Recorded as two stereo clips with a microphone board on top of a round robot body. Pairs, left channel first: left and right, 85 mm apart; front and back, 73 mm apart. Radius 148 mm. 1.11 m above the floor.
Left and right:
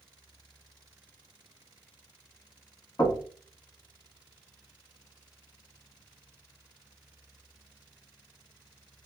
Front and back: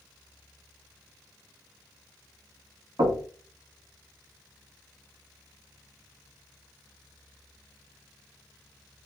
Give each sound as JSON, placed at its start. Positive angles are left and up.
{"t": 3.0, "sound": "knocking", "azimuth_deg": 140, "distance_m": 1.0}